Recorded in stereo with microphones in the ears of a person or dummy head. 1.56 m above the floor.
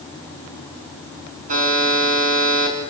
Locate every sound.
1.5 s a buzzer: 45° right (ahead or behind), 6.5 m